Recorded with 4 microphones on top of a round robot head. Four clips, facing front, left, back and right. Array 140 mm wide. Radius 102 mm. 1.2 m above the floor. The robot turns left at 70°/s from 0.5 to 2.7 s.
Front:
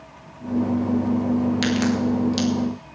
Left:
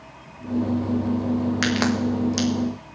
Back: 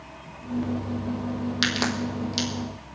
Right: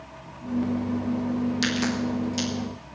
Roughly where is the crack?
Behind left.